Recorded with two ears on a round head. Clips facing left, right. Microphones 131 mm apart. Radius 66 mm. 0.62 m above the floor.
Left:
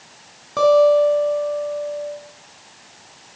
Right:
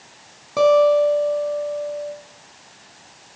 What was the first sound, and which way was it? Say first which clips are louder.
A guitar: left 1 dB; 10° right (ahead or behind).